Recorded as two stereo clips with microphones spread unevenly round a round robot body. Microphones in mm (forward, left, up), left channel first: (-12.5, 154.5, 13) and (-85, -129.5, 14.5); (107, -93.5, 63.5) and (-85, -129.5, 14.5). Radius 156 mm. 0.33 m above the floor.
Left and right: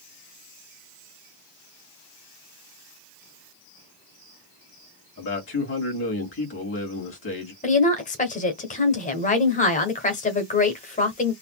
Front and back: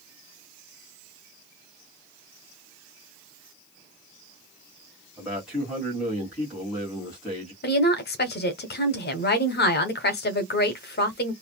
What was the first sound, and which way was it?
A man speaking, 115° left.